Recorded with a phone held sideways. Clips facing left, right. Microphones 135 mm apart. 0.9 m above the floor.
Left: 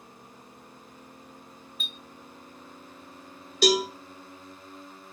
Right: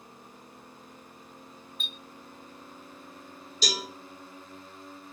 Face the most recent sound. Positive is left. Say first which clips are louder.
# left 12 dB
turn(degrees=60)  # may be behind; listen again after turning